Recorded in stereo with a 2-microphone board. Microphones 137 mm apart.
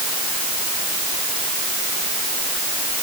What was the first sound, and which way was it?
Only background noise.